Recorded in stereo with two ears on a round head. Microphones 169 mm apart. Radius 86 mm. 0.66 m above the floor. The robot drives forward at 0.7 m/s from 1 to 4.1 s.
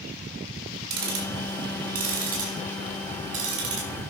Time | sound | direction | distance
0.9 | ticking | 60° right (ahead or behind) | 4 m